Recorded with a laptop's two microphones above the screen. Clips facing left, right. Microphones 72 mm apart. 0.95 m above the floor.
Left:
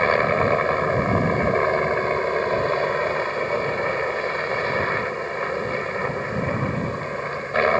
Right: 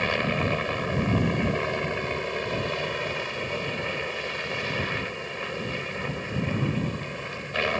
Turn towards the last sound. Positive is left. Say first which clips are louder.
# left 7 dB
turn(degrees=35)  # may be behind; listen again after turning